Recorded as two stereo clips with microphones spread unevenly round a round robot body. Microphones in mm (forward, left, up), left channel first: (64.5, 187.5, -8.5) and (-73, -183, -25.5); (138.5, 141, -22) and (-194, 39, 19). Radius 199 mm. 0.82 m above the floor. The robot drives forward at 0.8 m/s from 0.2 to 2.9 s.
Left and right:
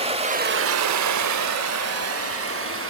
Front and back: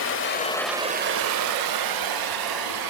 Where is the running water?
35° right, 0.7 m; by 2.9 s 170° right, 1.8 m.